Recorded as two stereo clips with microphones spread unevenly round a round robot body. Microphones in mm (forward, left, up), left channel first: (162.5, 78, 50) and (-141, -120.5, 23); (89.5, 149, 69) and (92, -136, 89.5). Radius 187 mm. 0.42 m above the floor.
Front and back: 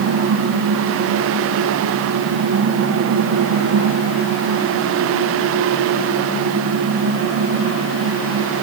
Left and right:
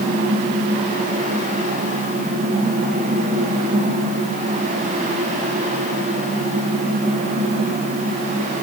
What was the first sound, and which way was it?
Only background noise.